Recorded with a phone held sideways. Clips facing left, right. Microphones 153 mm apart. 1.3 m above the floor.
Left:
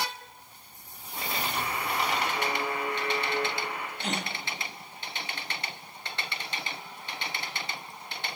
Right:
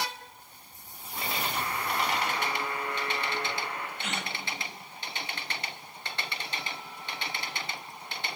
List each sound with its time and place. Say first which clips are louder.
1.6 s a buzzer: left 1 dB; 15° left (ahead or behind), 3.5 m
4.0 s a gasp: left 3 dB; 35° left (ahead or behind), 1.0 m